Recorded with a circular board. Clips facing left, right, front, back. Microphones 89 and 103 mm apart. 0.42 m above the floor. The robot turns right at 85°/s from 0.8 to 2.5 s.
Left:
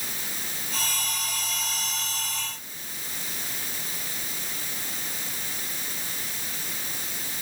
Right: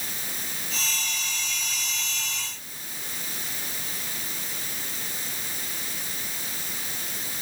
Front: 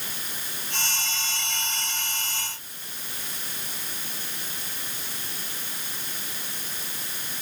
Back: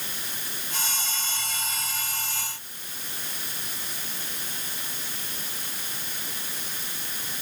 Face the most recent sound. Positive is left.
No sound to turn to.